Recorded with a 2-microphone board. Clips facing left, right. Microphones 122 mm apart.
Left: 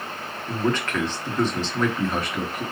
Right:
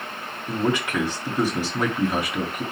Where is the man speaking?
10° right (ahead or behind), 1.5 m.